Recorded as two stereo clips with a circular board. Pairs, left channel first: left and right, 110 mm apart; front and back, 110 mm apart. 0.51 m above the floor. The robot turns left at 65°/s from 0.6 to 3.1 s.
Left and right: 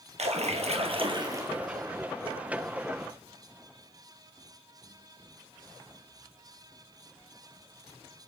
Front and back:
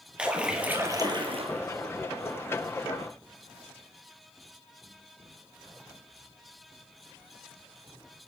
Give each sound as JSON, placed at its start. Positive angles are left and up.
{"t": 0.2, "sound": "a splash", "azimuth_deg": -100, "distance_m": 2.0}